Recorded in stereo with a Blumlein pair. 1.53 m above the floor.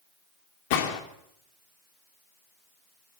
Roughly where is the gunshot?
Ahead left.